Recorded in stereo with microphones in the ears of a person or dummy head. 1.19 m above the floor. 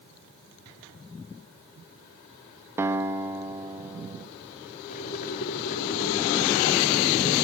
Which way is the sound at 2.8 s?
5° right (ahead or behind).